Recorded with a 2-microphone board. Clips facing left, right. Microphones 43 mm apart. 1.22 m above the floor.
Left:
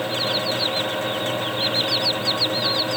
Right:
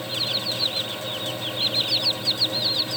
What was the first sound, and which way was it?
Only background noise.